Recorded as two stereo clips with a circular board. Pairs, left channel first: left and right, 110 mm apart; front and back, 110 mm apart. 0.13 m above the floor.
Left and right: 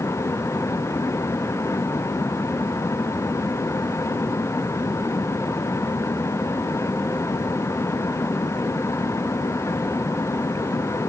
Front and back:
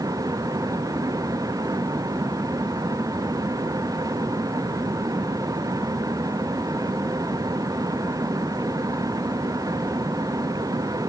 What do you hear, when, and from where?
Only background noise.